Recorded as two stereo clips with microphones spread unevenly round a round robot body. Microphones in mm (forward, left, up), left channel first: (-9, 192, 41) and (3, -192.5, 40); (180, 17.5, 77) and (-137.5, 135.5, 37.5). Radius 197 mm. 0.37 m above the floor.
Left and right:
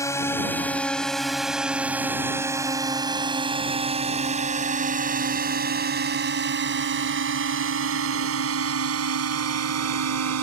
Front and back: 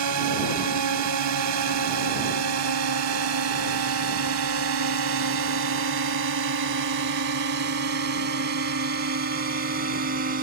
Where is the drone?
175° left; by 10.4 s 135° right.